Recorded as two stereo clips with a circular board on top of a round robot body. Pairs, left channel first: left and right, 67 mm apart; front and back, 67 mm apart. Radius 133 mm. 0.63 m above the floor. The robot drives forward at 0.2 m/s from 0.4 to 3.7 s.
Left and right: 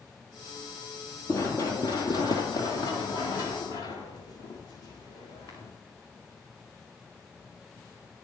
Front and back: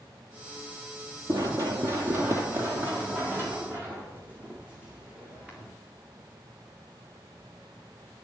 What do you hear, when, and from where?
1.3 s running footsteps: 140° left, 0.9 m; by 5.7 s 105° left, 3 m